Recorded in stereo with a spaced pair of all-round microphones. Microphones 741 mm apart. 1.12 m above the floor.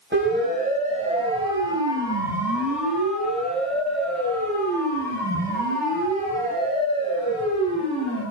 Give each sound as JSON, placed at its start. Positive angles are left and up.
{"t": 0.1, "sound": "a siren", "side_deg": -15, "distance_m": 5.0}